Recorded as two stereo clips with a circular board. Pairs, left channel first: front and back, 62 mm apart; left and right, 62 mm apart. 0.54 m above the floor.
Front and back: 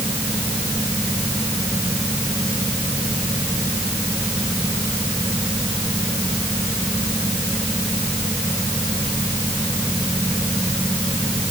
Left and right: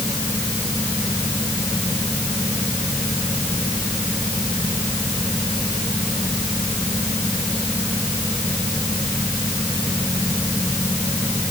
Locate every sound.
Only background noise.